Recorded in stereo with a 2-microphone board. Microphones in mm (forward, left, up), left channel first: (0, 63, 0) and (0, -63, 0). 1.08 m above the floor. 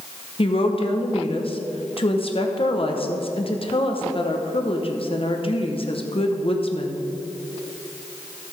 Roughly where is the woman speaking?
Left.